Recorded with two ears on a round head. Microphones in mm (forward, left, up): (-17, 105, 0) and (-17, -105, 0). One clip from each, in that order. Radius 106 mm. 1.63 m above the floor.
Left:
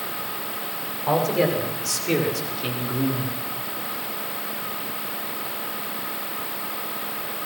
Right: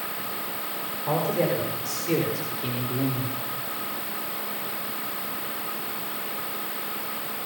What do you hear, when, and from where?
1.1 s a man speaking: 30° left (ahead or behind), 6.5 m; by 3.4 s 15° left (ahead or behind), 4.5 m